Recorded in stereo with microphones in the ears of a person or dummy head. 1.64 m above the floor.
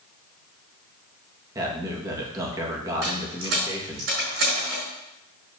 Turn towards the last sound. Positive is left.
turn(degrees=-60)  # may be behind; listen again after turning